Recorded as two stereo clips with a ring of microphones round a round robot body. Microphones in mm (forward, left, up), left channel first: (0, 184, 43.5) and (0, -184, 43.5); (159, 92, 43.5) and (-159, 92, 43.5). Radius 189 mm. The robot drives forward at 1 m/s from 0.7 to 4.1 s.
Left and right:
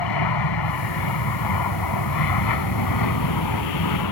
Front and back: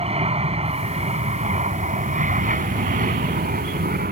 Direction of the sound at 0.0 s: 110° left.